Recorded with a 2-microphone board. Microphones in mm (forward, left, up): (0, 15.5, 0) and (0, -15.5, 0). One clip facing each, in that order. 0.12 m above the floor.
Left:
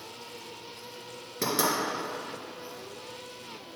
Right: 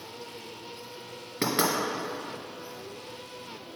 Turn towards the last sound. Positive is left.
turn(degrees=-25)  # may be behind; listen again after turning